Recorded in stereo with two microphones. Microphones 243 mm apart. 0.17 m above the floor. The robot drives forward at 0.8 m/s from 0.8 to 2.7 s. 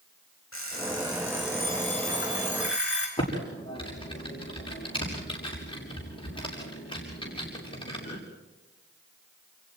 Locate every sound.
0.5 s an alarm clock: 55° left (ahead or behind), 5.5 m; by 3.1 s 45° left (ahead or behind), 6.5 m
3.2 s typing on a keyboard: 20° left (ahead or behind), 7 m